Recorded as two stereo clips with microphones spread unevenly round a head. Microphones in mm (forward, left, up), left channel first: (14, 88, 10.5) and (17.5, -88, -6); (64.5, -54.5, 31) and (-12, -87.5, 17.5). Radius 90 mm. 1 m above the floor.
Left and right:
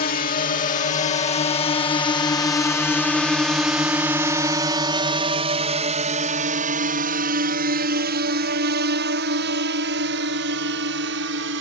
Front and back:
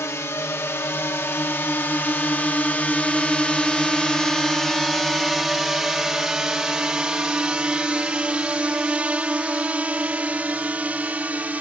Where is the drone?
85° left; by 11.6 s 85° right.